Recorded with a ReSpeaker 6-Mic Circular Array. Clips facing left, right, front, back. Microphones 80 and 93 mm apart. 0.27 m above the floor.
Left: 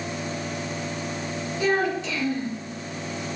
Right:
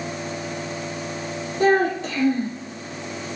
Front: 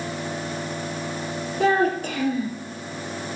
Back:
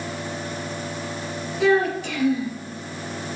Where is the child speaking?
45° right, 3 m.